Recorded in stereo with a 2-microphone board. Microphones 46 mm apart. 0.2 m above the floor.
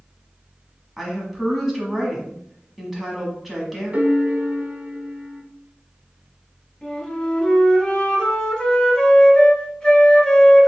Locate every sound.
1.0 s a woman speaking: 5° right (ahead or behind), 1.2 m
3.9 s a piano: 35° right (ahead or behind), 0.7 m
6.8 s a flute: 15° left (ahead or behind), 1.1 m